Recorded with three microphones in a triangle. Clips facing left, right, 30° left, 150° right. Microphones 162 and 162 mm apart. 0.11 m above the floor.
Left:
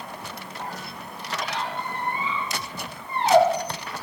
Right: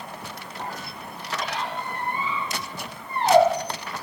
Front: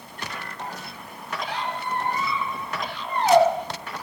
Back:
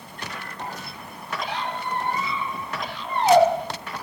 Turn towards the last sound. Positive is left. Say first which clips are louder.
# even, even
turn(degrees=-90)